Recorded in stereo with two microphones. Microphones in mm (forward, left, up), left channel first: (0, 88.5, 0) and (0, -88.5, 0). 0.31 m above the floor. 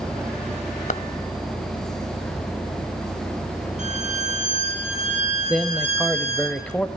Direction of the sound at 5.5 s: 5° left (ahead or behind).